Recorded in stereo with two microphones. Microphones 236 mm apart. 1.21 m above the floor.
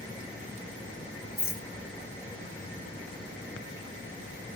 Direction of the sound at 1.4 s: 40° left (ahead or behind).